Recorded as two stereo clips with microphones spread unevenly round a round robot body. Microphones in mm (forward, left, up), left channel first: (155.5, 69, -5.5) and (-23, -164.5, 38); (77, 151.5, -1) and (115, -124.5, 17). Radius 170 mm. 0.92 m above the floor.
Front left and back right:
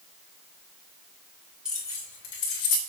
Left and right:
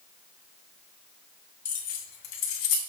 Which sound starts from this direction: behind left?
Keys jangling, at 1.6 s.